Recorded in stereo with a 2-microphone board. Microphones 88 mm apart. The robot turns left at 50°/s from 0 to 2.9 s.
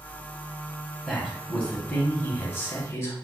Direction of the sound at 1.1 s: Straight behind.